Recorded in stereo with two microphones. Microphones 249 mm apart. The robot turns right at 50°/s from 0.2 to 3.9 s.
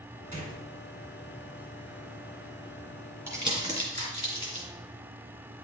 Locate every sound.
0.3 s a gunshot: 30° right (ahead or behind), 2.0 m; by 0.6 s 40° right (ahead or behind), 2.0 m
3.3 s crumpling: 10° right (ahead or behind), 2.5 m; by 4.7 s 40° right (ahead or behind), 2.5 m